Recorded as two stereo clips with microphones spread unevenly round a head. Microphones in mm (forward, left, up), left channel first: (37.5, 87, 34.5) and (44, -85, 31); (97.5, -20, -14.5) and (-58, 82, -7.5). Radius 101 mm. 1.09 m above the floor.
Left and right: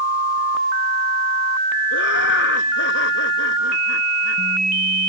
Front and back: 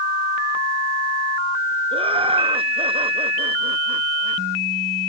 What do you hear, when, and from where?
1.9 s laughter: 85° left